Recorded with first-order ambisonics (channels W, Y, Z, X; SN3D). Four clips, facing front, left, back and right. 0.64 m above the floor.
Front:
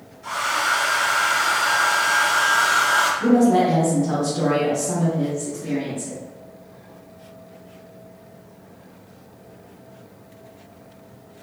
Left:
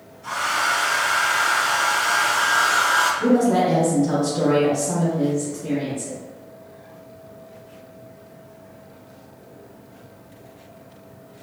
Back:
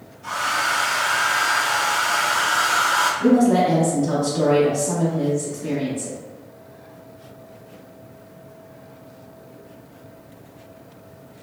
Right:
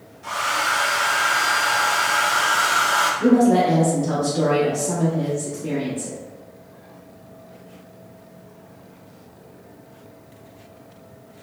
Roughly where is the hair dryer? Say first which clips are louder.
Even, even; right.